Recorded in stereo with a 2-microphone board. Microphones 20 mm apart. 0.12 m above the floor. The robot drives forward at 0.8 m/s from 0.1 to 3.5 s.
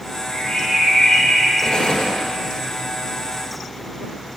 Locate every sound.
0.3 s a bird: 55° left (ahead or behind), 4 m; by 1.5 s 70° left (ahead or behind), 4 m
1.6 s an explosion: 45° left (ahead or behind), 2 m; by 2.2 s 50° left (ahead or behind), 1.9 m